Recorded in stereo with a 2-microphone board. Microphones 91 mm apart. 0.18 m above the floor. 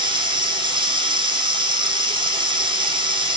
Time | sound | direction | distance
0.0 | running water | 60° right (ahead or behind) | 5.5 m